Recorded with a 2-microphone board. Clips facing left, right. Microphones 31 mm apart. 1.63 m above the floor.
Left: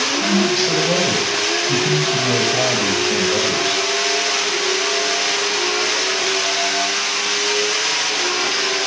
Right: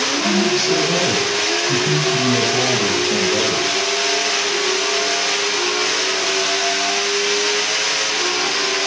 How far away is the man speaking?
About 9 m.